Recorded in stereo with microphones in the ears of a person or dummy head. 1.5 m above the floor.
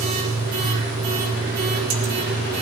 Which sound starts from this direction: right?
A machine running, at 0.0 s.